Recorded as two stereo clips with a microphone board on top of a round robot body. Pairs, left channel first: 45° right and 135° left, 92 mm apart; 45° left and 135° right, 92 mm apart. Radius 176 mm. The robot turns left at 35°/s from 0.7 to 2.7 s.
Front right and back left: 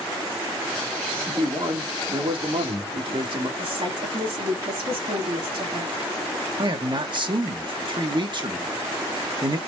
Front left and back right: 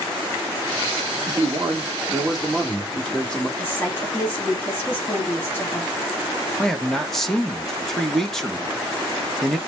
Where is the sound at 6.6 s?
130° left, 1.3 m.